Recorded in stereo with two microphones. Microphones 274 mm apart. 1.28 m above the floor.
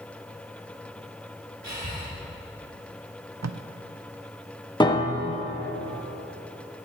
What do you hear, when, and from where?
1.6 s breathing: 75° right (ahead or behind), 2.5 m
3.4 s tape being pulled: 70° right (ahead or behind), 0.5 m
4.8 s a piano: 15° left (ahead or behind), 0.9 m